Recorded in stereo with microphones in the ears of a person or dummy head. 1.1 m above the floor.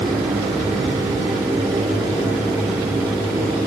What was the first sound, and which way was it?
Only background noise.